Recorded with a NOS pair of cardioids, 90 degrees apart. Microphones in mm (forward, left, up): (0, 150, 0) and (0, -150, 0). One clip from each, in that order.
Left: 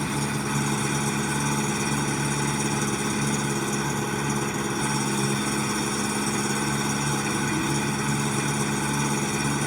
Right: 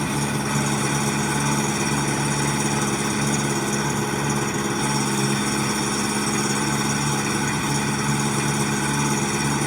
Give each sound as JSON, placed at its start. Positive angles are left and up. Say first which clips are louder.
{"t": 0.0, "sound": "an engine running", "louder": "right 3 dB", "azimuth_deg": -25}